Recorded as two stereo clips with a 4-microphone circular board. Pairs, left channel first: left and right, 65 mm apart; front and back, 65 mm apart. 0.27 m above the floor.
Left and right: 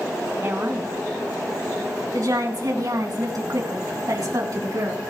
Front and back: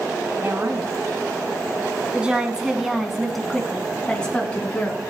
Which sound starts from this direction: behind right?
A woman speaking, at 0.4 s.